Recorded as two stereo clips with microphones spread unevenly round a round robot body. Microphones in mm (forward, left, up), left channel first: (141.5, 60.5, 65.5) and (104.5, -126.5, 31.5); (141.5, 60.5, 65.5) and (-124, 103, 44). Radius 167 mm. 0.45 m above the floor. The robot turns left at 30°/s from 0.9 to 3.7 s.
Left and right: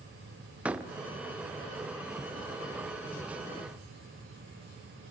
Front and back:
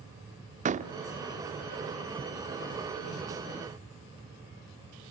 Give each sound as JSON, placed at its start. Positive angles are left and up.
{"t": 0.7, "sound": "a door slam", "azimuth_deg": -165, "distance_m": 0.9}